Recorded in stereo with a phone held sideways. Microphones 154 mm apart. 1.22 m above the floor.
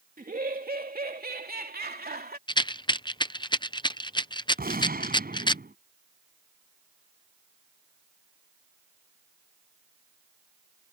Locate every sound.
0.2 s laughter: 65° right (ahead or behind); by 2.4 s 85° right
2.5 s a rattle: 30° left (ahead or behind)
4.6 s a gunshot: 75° right (ahead or behind)